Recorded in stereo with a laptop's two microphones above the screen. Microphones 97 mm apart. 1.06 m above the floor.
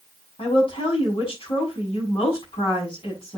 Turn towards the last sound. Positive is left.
turn(degrees=65)  # may be behind; listen again after turning